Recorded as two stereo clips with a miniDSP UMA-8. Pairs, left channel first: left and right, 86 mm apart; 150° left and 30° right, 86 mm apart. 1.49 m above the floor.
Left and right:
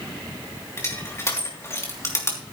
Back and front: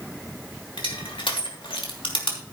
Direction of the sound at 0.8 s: 145° left.